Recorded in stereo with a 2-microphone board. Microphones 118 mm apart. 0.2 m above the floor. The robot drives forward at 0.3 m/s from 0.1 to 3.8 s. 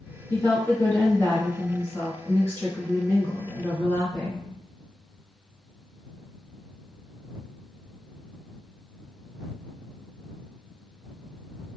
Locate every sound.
0.3 s a woman speaking: 20° left (ahead or behind), 1.1 m; by 4.5 s 10° left (ahead or behind), 1.8 m